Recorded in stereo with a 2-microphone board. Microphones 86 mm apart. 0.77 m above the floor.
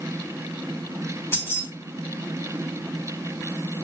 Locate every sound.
1.3 s keys jangling: 30° left (ahead or behind), 3.5 m